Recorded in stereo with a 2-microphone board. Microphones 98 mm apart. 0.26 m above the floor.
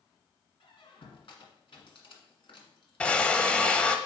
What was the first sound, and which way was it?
A squeak, 65° left (ahead or behind).